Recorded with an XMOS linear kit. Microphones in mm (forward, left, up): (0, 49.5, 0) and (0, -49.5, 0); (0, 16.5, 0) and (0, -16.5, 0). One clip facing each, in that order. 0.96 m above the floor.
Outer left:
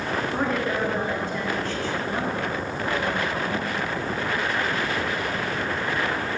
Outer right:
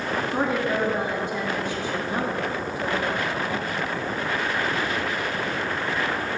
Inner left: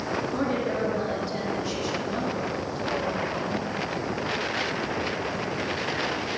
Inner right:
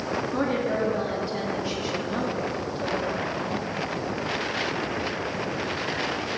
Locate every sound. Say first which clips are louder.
0.3 s a woman speaking: outer right 2 dB, inner right 2 dB; 15° right (ahead or behind), 1.5 m